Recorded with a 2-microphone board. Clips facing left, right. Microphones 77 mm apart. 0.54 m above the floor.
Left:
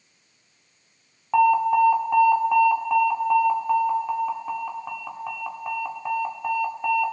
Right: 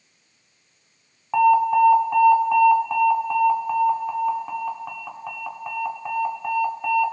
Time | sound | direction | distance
1.3 | an alarm | 5° left (ahead or behind) | 1.7 m